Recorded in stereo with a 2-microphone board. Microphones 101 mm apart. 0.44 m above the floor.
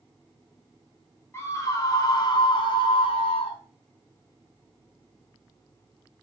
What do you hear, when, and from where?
1.3 s a scream: 25° left (ahead or behind), 2.5 m; by 3.6 s 65° left (ahead or behind), 3 m